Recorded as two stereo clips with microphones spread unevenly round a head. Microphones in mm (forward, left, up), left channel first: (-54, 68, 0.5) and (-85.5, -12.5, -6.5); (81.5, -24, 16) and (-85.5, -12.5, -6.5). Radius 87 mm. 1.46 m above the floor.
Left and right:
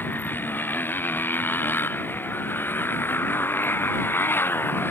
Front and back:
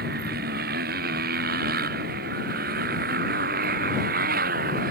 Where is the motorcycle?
135° left.